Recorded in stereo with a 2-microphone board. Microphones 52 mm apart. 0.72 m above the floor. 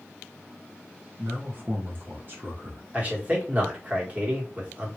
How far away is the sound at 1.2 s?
About 1.4 m.